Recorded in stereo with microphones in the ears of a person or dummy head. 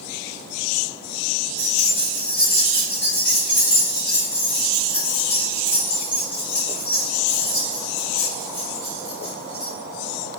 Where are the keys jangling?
10° left (ahead or behind), 1.2 m.